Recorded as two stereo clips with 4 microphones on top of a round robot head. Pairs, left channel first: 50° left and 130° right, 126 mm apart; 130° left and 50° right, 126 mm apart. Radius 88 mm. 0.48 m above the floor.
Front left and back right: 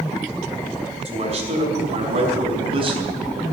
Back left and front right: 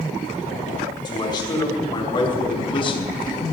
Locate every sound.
1.1 s a man speaking: 175° right, 5 m; by 3.4 s straight behind, 3 m